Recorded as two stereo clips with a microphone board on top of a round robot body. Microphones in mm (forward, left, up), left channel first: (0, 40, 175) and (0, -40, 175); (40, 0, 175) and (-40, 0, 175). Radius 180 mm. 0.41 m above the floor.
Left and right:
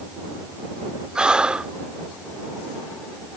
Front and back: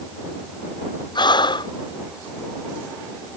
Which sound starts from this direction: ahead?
Breathing, at 1.1 s.